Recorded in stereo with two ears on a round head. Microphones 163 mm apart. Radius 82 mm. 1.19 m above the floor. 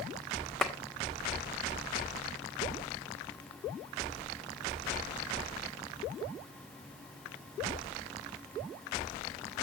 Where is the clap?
5° left (ahead or behind), 1.6 m.